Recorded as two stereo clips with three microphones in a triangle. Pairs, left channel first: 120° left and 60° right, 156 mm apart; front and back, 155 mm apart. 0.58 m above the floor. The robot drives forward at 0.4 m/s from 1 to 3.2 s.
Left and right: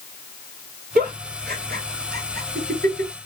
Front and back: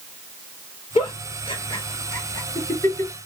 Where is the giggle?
50° right, 1.9 m; by 3.1 s 75° right, 1.5 m.